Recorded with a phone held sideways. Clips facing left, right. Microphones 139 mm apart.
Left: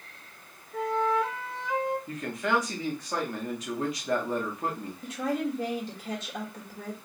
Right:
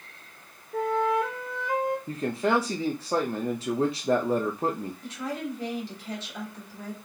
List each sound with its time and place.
0.7 s a flute: 55° right (ahead or behind), 1.0 m
2.1 s a man speaking: 30° right (ahead or behind), 0.7 m
5.0 s a woman speaking: 50° left (ahead or behind), 3 m